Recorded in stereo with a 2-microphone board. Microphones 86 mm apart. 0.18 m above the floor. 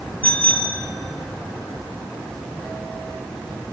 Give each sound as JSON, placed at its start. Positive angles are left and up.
{"t": 0.2, "sound": "a bicycle bell", "side_deg": 15, "distance_m": 2.5}